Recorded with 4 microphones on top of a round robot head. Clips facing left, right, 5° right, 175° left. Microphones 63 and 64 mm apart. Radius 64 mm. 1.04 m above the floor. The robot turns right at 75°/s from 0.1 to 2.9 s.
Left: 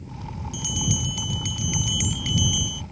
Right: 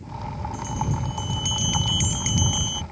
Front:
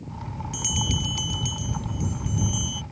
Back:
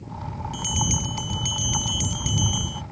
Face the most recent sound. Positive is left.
turn(degrees=-115)